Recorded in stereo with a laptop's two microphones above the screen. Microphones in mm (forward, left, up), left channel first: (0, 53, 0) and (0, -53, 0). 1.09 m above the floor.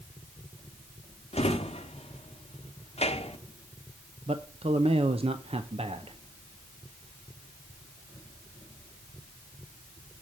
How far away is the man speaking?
About 0.6 m.